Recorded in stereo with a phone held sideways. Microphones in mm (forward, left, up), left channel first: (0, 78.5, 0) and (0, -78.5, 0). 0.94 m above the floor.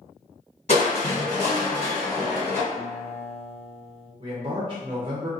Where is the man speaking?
35° right (ahead or behind), 0.5 m.